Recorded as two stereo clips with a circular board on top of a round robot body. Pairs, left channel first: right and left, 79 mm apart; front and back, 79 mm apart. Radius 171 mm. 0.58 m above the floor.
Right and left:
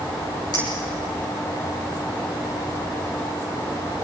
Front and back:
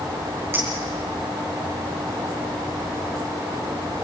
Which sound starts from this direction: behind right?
A clink, at 0.5 s.